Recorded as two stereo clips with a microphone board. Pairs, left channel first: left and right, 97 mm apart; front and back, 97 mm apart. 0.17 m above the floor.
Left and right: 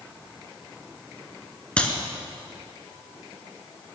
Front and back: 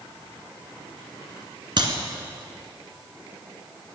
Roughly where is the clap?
Behind.